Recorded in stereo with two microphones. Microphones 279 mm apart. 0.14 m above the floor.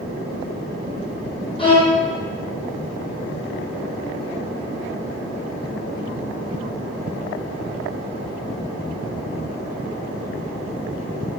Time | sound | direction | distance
1.6 | a violin | 20° left (ahead or behind) | 0.9 m